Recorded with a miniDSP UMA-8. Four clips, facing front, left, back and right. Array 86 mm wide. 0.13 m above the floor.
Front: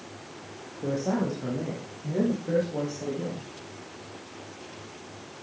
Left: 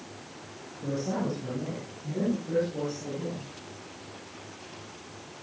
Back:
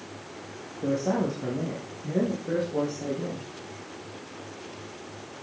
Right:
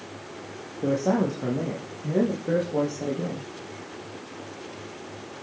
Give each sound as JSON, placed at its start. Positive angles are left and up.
{"t": 0.8, "sound": "a man speaking", "azimuth_deg": -95, "distance_m": 5.5}